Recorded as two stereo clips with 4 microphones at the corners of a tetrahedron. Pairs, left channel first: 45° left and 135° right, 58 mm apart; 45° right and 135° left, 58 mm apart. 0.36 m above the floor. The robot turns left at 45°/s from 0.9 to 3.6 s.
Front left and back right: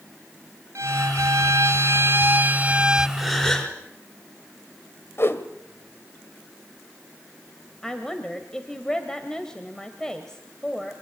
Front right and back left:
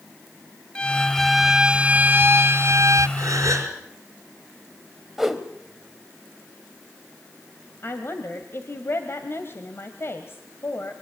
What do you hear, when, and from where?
0.8 s a violin: 120° right, 0.6 m; by 3.1 s 145° left, 0.6 m
3.2 s a gasp: 135° left, 5 m; by 3.8 s 115° left, 5 m
5.2 s a whoosh: 50° left, 1.8 m
7.8 s a woman speaking: 30° right, 2 m